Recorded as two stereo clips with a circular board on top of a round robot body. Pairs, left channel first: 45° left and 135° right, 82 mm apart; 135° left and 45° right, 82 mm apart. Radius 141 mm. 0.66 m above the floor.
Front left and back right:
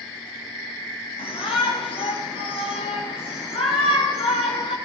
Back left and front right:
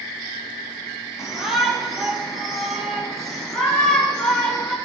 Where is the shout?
40° left, 7 m; by 4.8 s 50° left, 8.5 m.